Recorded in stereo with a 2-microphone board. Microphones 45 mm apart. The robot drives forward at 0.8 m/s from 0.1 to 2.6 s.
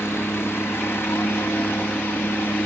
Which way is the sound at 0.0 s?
65° left (ahead or behind).